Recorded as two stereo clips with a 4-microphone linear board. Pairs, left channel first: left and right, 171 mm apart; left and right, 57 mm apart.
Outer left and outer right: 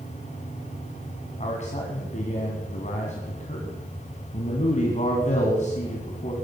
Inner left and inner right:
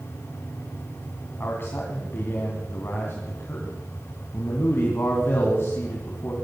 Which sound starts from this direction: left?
A man speaking, at 1.4 s.